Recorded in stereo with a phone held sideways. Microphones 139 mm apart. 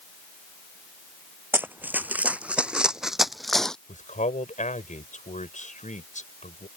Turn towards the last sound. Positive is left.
turn(degrees=65)  # may be behind; listen again after turning